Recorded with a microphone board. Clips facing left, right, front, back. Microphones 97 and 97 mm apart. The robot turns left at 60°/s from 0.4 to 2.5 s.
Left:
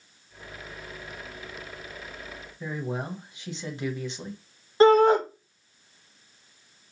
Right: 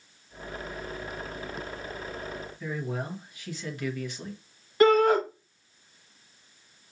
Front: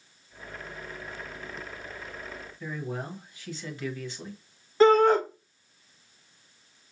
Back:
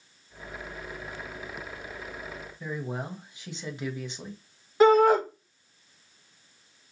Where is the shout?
110° left, 1.1 m.